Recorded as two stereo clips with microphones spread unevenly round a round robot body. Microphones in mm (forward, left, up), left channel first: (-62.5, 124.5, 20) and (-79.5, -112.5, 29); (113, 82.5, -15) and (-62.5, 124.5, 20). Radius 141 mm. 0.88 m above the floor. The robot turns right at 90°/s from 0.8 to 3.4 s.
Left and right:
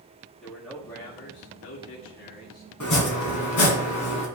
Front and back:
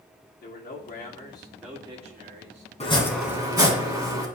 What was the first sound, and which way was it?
A man speaking, straight ahead.